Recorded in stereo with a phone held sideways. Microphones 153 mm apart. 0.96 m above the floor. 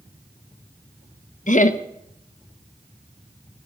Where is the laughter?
55° left (ahead or behind), 1.0 m.